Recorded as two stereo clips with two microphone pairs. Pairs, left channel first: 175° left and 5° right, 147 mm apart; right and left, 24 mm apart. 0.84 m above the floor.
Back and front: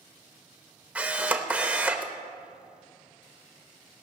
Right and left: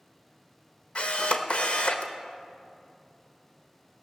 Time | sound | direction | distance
0.9 | a camera shutter | 90° right | 0.9 m